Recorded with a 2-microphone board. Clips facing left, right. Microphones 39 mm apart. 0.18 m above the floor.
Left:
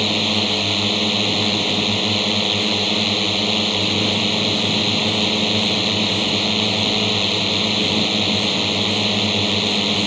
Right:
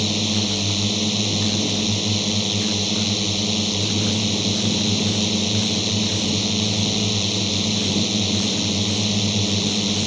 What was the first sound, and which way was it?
A drone, 35° left (ahead or behind).